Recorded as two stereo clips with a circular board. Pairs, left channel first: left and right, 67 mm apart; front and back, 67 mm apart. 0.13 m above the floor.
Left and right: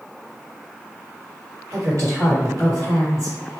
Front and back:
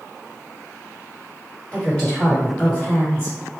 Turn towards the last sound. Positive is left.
turn(degrees=-75)